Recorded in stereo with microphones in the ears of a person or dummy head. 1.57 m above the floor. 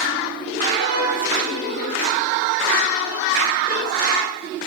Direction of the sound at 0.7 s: 35° left (ahead or behind).